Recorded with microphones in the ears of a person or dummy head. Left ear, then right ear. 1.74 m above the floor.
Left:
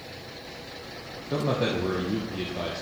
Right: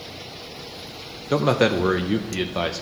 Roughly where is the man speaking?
Right.